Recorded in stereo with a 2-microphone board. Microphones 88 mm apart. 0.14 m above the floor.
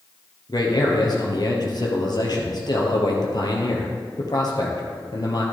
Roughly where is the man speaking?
Left.